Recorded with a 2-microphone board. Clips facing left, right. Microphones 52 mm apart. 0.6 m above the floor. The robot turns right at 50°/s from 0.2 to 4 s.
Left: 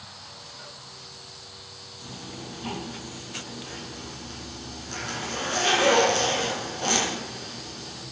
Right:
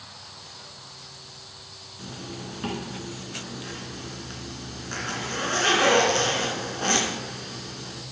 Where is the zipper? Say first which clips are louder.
Right 3 dB; 140° right, 2.5 m; by 8.0 s 40° right, 2.5 m.